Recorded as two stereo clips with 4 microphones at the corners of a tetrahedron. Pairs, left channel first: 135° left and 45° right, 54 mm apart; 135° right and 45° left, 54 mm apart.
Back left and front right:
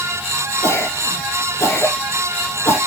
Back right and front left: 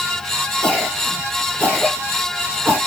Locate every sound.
0.6 s a cough: 105° left, 2 m